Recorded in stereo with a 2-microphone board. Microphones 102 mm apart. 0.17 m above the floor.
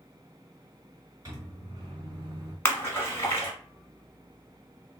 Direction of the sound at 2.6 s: 25° left (ahead or behind).